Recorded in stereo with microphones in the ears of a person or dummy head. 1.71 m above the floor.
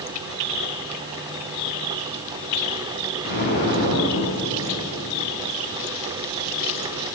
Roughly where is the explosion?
Left.